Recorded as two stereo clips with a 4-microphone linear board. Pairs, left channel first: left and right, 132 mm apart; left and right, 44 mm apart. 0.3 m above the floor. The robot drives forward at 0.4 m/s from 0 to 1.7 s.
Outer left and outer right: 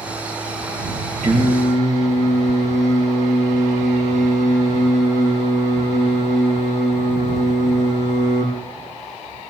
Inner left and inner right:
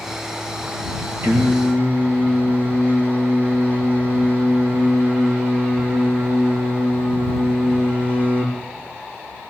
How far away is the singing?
About 4 m.